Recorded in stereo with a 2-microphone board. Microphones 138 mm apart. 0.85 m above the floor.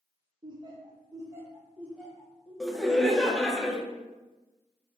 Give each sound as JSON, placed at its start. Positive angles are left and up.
{"t": 0.4, "sound": "laughter", "side_deg": -35, "distance_m": 0.8}
{"t": 2.6, "sound": "laughter", "side_deg": 0, "distance_m": 0.5}